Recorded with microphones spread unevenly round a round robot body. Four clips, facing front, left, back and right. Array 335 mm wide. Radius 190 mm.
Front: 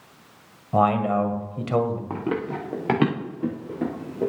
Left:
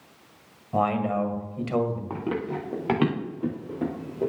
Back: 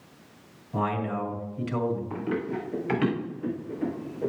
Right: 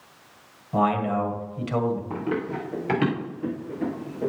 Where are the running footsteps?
10° left, 3.5 m; by 4.3 s 15° left, 5 m.